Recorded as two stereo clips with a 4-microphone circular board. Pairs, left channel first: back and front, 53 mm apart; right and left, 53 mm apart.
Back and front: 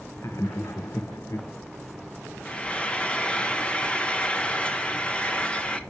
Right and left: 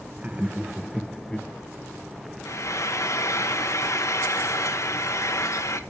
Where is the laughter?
155° left, 1.1 m; by 1.5 s 160° right, 0.8 m.